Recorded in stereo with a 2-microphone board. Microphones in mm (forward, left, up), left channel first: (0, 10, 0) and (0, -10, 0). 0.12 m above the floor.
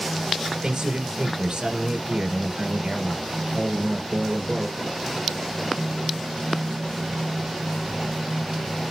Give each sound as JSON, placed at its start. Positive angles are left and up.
{"t": 0.6, "sound": "a man speaking", "side_deg": -50, "distance_m": 1.6}